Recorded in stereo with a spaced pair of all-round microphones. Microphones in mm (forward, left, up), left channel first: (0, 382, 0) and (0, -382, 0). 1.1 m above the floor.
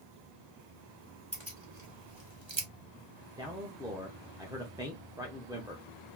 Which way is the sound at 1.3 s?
35° right (ahead or behind).